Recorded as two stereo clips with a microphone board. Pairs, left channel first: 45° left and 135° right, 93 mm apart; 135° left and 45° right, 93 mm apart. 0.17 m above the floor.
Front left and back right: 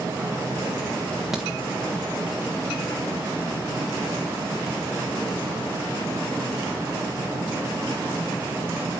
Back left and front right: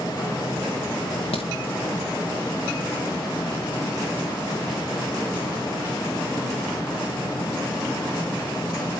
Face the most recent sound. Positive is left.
turn(degrees=140)